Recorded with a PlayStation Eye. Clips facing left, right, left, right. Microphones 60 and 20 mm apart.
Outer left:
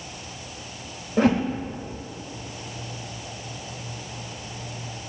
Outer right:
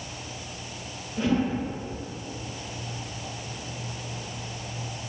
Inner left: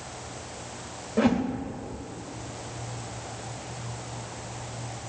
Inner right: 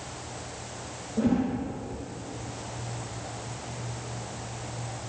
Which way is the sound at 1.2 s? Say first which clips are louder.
Outer left 5 dB, inner left 2 dB; 65° left (ahead or behind).